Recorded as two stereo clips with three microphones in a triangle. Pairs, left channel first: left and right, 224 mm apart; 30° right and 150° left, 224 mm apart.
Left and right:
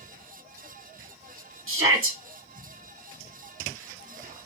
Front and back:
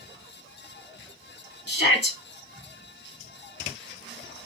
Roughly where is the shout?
Ahead right.